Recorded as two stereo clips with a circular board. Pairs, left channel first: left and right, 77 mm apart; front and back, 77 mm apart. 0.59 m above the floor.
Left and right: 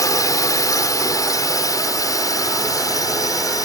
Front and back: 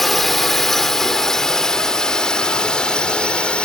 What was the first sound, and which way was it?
A drone, 85° left.